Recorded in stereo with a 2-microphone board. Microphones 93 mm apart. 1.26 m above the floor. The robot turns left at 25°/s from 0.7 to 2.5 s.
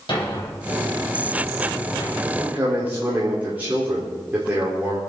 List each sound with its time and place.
0.1 s a thud: 60° left (ahead or behind), 4 m; by 2.1 s 80° left, 4 m
2.2 s a man speaking: 15° right (ahead or behind), 4.5 m; by 5.0 s 20° right (ahead or behind), 4.5 m